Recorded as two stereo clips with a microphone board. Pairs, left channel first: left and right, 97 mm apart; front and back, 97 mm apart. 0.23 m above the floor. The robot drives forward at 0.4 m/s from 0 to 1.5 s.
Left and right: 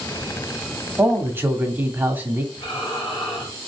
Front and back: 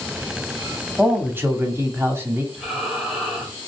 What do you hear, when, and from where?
1.0 s a man speaking: 120° right, 1.0 m; by 2.4 s 140° right, 1.0 m
2.5 s breathing: 100° left, 3.5 m